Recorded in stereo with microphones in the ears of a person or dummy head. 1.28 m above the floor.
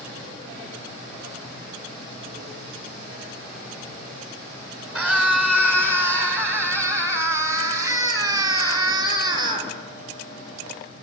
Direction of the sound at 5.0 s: 15° right (ahead or behind).